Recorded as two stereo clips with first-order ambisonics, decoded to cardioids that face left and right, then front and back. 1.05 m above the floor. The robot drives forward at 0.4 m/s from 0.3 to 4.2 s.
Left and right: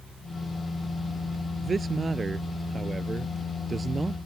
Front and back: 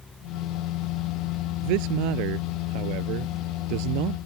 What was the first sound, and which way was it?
A man speaking, 165° right.